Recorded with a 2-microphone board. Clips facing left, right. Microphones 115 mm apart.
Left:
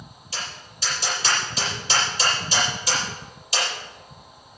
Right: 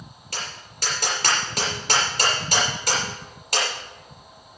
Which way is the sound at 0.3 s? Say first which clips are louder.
Even; 60° right (ahead or behind).